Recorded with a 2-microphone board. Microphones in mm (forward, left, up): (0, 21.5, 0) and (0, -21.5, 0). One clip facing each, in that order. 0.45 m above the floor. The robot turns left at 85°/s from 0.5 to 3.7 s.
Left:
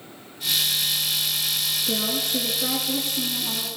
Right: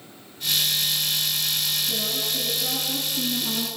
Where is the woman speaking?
120° left, 6 m; by 3.7 s 40° right, 6 m.